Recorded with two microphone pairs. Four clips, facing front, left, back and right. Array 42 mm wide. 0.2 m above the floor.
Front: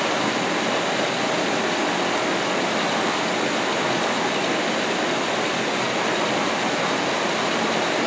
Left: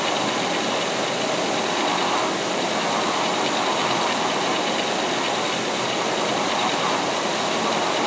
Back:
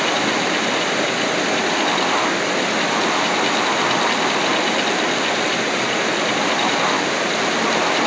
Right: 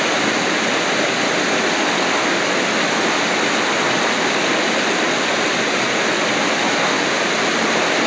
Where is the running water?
110° right, 2.5 m.